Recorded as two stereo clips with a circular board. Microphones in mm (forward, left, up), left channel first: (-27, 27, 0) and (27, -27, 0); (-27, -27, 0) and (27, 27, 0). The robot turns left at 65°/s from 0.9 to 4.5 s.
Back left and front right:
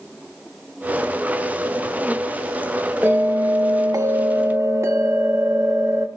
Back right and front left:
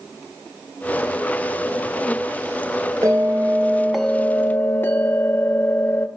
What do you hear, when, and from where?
3.0 s a bell: 15° left, 0.6 m; by 6.1 s 85° right, 0.6 m